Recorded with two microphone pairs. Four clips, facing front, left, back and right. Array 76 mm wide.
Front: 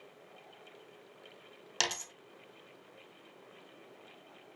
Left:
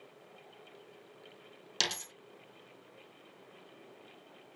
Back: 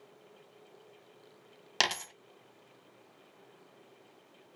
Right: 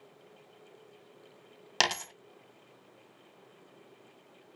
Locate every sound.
1.8 s a dropped coin: 115° right, 0.7 m